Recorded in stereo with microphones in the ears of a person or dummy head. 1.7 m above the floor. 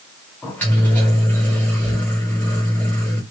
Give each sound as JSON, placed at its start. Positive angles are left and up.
{"t": 0.4, "sound": "a microwave", "side_deg": 10, "distance_m": 1.1}